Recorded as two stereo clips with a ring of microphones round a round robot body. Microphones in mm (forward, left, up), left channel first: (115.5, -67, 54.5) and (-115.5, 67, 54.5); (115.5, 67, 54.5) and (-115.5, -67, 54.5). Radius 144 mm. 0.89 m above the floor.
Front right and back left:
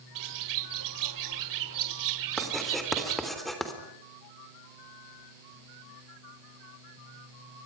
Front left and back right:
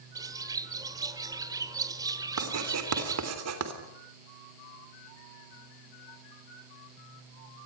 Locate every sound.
0.1 s a bird: 130° left, 1.2 m
2.4 s writing: 120° right, 3.5 m